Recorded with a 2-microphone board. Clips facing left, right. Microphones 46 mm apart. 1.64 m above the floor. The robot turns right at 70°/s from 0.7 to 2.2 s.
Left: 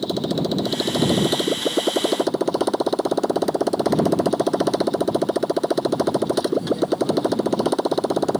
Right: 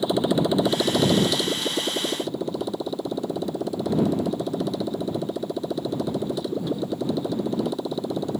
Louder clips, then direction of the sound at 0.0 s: Right 1 dB; 20° right.